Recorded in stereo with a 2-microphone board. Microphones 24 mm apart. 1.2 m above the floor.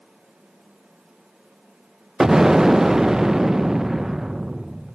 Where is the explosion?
15° right (ahead or behind), 0.6 m.